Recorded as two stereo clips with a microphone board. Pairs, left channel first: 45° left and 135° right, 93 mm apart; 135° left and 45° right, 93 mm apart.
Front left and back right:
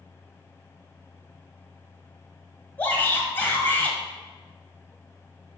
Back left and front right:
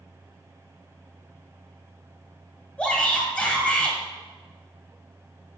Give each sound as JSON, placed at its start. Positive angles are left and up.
{"t": 2.8, "sound": "a shout", "azimuth_deg": 80, "distance_m": 1.1}